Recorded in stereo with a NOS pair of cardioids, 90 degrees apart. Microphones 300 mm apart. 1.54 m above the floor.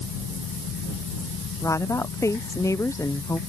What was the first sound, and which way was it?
A fan, 60° left.